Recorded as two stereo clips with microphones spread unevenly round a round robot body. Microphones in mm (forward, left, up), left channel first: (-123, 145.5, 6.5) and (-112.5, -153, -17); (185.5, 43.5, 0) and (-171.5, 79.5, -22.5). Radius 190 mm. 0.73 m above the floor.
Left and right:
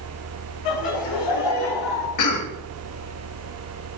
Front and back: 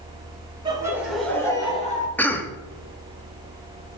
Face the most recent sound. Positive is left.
turn(degrees=80)